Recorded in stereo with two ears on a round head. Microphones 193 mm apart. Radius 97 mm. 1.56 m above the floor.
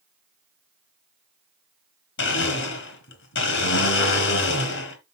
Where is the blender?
60° left (ahead or behind), 3 m.